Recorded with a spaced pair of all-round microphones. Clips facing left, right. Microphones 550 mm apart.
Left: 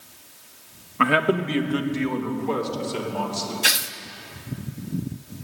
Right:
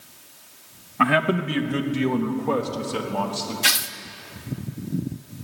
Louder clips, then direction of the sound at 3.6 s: Left 1 dB; 25° right (ahead or behind).